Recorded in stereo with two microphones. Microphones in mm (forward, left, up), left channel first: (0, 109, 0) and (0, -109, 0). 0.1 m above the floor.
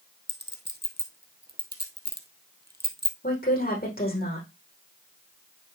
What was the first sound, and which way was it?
A clink, 50° right (ahead or behind).